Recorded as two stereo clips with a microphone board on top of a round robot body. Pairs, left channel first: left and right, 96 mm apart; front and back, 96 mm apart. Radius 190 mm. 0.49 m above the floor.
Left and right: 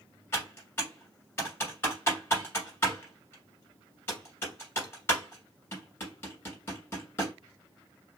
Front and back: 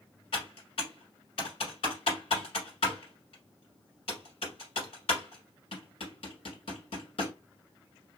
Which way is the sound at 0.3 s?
25° left.